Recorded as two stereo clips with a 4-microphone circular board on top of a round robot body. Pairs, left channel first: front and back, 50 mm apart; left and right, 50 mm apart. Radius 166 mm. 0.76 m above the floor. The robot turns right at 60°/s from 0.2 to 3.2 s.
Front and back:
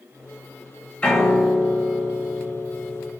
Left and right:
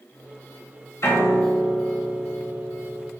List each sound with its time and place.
1.0 s a piano: 60° left, 1.2 m; by 3.1 s 175° right, 1.2 m